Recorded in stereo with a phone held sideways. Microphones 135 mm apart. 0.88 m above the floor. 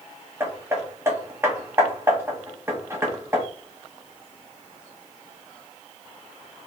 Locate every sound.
0.4 s hammering: 20° right (ahead or behind), 1.5 m